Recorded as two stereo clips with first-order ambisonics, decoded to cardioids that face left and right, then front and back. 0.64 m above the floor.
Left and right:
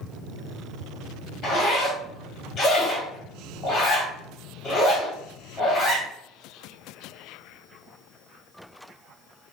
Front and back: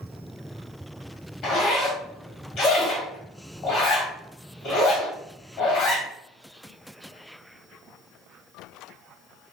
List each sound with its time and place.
1.4 s a zipper: 35° left, 1.7 m